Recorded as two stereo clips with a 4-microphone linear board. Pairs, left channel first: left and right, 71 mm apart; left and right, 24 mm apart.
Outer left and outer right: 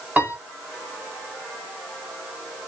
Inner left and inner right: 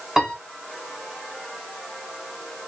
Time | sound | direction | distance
0.2 | a piano | 25° right (ahead or behind) | 1.5 m